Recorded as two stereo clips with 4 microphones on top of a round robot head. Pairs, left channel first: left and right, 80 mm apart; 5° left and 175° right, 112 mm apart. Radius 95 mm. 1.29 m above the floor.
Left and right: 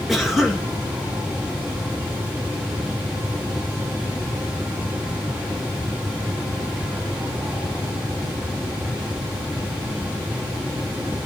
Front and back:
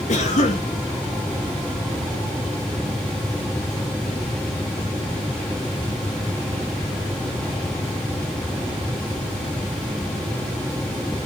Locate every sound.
0.1 s a cough: straight ahead, 2 m